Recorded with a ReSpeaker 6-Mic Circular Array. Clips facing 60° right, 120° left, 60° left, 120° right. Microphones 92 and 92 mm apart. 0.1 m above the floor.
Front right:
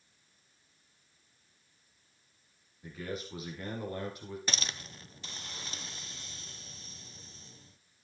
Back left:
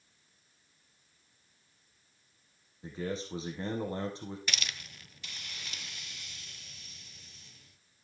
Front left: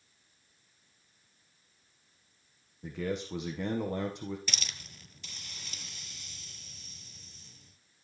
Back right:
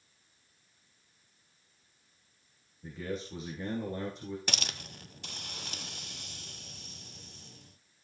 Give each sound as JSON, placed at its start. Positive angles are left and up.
{"t": 2.8, "sound": "a man speaking", "azimuth_deg": 60, "distance_m": 5.0}
{"t": 4.5, "sound": "a hiss", "azimuth_deg": -110, "distance_m": 0.7}